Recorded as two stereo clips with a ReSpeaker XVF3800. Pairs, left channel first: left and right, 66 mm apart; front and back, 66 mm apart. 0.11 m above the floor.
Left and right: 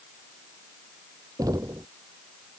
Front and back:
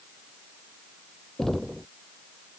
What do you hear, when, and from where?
1.4 s knocking: 85° right